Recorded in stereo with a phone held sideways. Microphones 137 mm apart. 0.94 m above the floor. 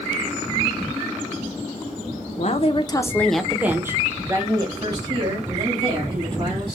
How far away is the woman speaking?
About 0.6 m.